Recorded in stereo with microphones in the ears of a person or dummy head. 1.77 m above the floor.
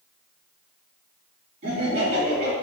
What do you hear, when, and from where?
1.6 s laughter: 40° right (ahead or behind), 1.5 m